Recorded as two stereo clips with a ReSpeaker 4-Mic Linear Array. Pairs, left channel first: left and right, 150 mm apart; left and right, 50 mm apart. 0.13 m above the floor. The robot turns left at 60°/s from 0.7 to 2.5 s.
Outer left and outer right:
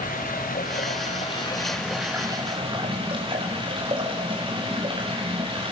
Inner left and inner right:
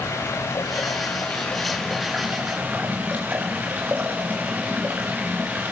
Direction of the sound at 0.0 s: 75° left.